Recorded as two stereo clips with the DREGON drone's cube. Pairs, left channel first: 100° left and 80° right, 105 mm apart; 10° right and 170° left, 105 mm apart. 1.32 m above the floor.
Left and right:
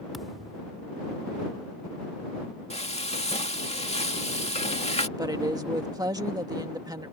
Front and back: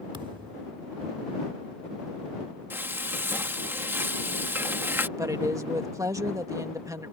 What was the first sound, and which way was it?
A thud, 170° right.